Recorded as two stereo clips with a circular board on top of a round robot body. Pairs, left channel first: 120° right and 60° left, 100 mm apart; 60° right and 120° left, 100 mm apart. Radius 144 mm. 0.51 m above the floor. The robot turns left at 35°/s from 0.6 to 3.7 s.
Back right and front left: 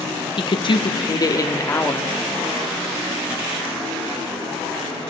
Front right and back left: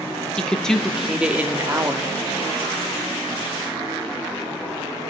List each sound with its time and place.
0.4 s a woman speaking: 140° right, 1.1 m; by 2.1 s 170° left, 1.1 m